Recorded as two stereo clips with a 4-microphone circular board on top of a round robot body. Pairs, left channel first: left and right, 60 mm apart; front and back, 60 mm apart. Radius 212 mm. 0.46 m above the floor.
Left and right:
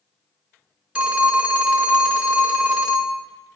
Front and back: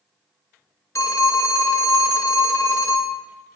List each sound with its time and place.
0.9 s a phone ringing: 20° right, 1.1 m